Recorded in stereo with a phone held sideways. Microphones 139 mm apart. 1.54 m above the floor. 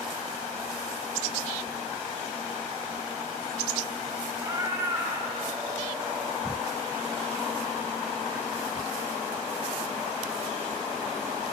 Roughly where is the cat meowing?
Right.